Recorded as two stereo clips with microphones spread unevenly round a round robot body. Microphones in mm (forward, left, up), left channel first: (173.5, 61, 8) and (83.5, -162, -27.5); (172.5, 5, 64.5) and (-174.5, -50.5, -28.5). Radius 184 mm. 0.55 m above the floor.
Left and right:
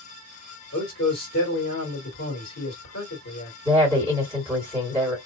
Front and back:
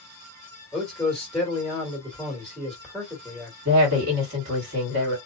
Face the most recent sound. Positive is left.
turn(degrees=175)